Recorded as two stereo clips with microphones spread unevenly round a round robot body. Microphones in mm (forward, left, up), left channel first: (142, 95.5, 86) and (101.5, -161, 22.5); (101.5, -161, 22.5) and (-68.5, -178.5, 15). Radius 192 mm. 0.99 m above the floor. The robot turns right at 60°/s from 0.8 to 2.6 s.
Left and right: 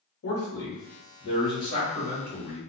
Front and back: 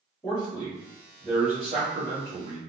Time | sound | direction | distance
0.2 | a man speaking | 80° left | 1.0 m